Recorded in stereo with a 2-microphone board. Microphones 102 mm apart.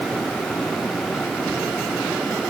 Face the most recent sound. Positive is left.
No sound to turn to.